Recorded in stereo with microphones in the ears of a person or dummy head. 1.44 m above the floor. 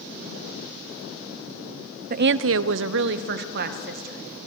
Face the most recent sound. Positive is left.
turn(degrees=-50)  # may be behind; listen again after turning